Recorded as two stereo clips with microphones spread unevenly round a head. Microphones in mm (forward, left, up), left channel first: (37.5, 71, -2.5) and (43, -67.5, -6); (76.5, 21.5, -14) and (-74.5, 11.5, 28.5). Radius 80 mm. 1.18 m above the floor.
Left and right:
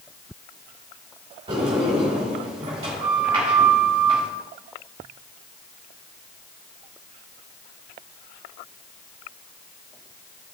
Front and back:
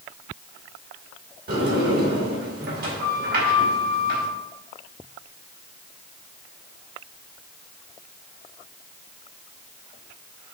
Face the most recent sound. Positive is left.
turn(degrees=-145)